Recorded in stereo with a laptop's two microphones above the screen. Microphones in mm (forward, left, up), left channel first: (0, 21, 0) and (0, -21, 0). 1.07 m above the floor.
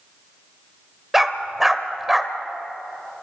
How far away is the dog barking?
About 1.3 m.